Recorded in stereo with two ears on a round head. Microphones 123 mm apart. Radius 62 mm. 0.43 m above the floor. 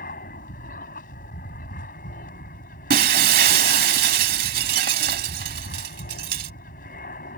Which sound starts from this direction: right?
Breaking glass, at 2.9 s.